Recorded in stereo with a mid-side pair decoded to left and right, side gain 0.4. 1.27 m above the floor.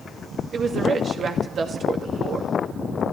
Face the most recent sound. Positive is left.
turn(degrees=-55)